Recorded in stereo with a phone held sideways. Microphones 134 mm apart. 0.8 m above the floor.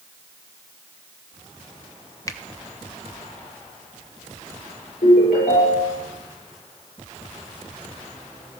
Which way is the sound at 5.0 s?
85° left.